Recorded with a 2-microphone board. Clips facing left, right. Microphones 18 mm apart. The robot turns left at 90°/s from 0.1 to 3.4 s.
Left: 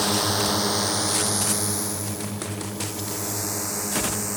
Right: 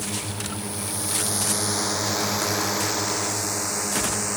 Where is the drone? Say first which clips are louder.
Left 8 dB; 60° left (ahead or behind); by 4.4 s 25° right (ahead or behind).